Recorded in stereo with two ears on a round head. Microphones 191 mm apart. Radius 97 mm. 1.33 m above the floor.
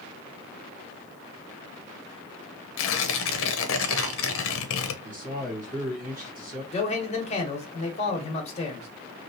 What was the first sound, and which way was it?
Tearing paper, 70° left (ahead or behind).